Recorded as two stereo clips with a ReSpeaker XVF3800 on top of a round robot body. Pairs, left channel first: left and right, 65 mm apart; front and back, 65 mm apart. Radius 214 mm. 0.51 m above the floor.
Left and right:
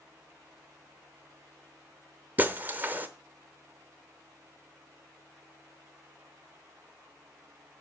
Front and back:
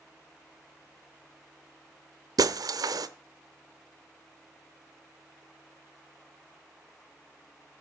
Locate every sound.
2.4 s breaking glass: 155° right, 0.8 m